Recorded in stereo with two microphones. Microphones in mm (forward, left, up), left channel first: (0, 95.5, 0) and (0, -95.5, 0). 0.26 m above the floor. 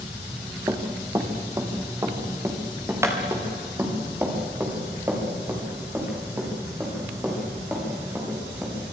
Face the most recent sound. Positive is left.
turn(degrees=-10)  # may be behind; listen again after turning